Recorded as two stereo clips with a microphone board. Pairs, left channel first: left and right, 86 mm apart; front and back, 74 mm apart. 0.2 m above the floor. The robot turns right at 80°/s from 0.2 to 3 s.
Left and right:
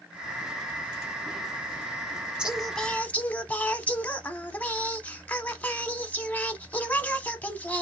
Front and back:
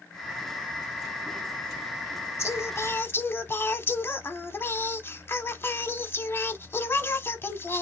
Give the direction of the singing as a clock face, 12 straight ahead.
1 o'clock.